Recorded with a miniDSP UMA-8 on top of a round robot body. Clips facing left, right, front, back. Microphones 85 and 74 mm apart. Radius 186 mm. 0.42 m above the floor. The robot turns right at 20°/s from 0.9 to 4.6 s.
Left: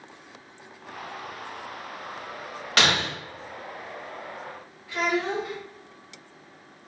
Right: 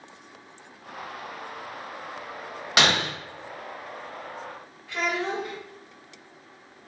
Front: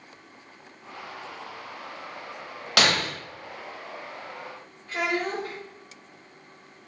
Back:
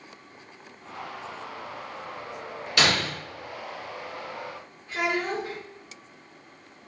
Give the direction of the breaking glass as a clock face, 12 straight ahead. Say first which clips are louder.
Right 1 dB, front 1 dB; 1 o'clock.